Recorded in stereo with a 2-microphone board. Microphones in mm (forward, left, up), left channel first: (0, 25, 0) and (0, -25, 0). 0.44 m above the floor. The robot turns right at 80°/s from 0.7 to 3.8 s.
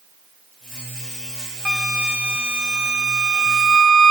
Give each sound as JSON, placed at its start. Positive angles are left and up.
{"t": 1.6, "sound": "a flute", "side_deg": -10, "distance_m": 1.0}